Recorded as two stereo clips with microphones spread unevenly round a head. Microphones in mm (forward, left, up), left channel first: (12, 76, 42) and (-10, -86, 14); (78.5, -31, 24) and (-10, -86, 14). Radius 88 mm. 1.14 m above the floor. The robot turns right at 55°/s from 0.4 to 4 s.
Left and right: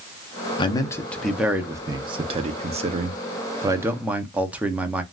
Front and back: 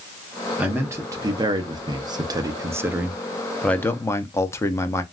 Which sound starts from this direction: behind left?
A man speaking, at 0.6 s.